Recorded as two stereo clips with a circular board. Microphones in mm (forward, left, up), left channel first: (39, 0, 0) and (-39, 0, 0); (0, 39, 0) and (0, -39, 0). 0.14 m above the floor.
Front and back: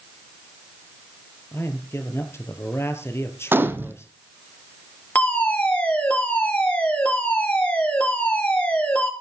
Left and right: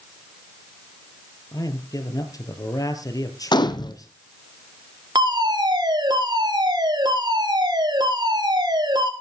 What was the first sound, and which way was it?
A man speaking, 55° left.